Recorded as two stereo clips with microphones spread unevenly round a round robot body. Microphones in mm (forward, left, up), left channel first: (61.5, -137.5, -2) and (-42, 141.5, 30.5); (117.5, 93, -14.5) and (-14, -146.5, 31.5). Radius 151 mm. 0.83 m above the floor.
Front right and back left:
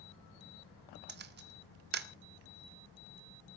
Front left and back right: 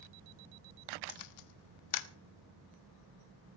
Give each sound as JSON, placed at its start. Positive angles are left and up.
{"t": 1.1, "sound": "a camera shutter", "azimuth_deg": 50, "distance_m": 1.5}